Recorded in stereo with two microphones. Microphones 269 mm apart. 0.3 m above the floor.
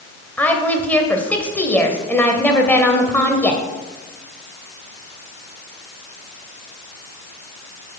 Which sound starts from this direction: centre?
A woman speaking, at 0.4 s.